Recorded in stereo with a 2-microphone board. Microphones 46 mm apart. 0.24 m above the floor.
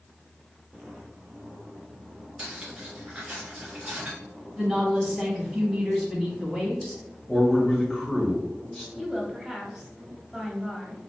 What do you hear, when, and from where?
2.4 s cutlery clinking: 20° right (ahead or behind), 1.9 m
4.6 s a woman speaking: 5° right (ahead or behind), 1.9 m
7.3 s a man speaking: 5° left (ahead or behind), 1.3 m
8.9 s a woman speaking: 10° right (ahead or behind), 1.1 m